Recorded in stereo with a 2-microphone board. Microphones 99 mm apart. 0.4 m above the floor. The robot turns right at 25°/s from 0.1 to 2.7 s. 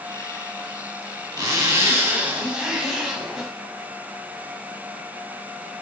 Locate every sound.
1.4 s a zipper: 40° right, 0.7 m; by 3.5 s 5° right, 0.7 m